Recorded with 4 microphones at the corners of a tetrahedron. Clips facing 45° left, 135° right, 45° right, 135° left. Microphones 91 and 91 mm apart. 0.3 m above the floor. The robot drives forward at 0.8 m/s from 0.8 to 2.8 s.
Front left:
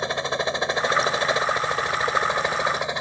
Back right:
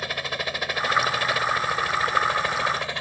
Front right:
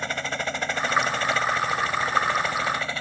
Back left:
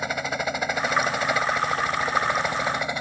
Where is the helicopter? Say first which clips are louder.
Front left 5 dB, back left 2 dB; 65° left; by 3.0 s 85° left.